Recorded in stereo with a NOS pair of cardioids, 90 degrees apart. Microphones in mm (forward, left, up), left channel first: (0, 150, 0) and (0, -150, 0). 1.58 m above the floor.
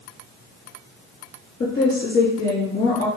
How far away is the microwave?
No microwave in this recording.